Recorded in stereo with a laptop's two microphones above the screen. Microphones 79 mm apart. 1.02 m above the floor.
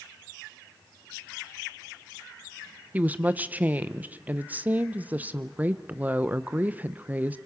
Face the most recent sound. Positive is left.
turn(degrees=-20)  # may be behind; listen again after turning